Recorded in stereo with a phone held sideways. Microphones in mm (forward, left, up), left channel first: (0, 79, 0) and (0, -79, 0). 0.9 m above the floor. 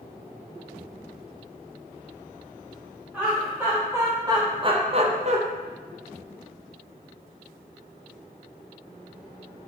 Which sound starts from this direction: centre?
Laughter, at 3.1 s.